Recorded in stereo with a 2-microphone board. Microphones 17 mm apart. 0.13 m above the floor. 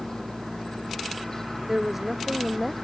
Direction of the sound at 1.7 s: 15° right (ahead or behind).